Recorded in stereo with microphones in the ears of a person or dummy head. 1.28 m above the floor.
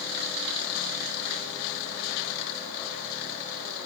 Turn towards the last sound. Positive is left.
No sound to turn to.